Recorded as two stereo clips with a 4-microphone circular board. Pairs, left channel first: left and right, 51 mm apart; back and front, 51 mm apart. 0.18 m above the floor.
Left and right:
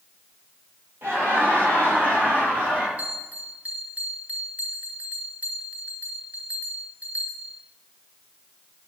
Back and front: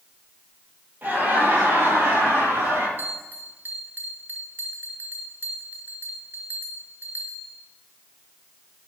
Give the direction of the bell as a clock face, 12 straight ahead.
1 o'clock.